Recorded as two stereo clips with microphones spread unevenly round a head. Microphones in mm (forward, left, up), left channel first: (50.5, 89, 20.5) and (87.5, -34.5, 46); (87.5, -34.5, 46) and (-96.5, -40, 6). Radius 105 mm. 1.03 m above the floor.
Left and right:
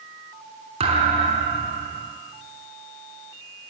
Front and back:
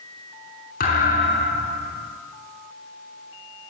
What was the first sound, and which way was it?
A thud, 35° right.